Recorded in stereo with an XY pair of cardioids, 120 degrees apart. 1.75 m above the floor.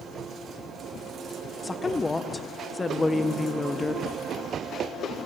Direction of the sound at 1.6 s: 20° left.